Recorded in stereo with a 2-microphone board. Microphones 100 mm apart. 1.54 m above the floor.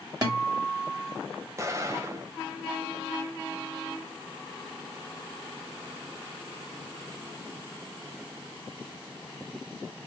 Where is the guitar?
40° right (ahead or behind), 2.0 m.